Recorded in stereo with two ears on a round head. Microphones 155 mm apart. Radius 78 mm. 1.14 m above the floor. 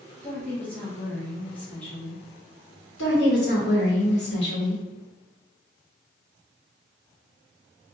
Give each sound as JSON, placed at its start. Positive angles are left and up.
{"t": 0.2, "sound": "a woman speaking", "side_deg": 10, "distance_m": 0.9}
{"t": 3.0, "sound": "a woman speaking", "side_deg": 75, "distance_m": 1.3}